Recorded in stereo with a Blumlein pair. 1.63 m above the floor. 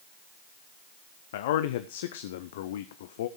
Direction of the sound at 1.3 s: 55° left.